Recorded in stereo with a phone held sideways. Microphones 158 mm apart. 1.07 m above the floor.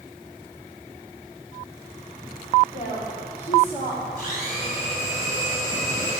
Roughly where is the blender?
Left.